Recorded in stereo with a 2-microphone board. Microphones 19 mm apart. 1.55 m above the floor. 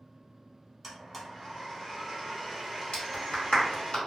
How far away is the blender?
About 1.1 m.